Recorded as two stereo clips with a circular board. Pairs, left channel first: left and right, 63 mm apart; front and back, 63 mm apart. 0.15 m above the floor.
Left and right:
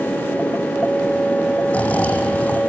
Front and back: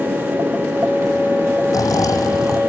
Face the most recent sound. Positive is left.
turn(degrees=25)